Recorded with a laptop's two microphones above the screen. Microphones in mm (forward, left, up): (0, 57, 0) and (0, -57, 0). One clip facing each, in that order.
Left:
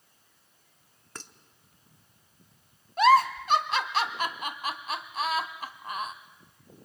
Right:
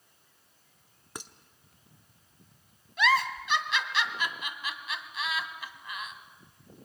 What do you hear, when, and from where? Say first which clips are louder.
1.1 s dishes clattering: right 2 dB; 15° right (ahead or behind), 1.1 m
3.0 s a giggle: left 7 dB; 45° left (ahead or behind), 1.1 m